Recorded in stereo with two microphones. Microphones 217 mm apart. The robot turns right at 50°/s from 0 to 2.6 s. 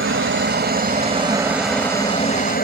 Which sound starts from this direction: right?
A helicopter, at 0.0 s.